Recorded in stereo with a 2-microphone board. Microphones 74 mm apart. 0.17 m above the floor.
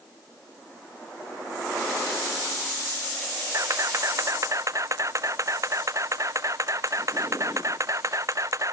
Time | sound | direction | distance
3.5 | a camera shutter | 45° right (ahead or behind) | ?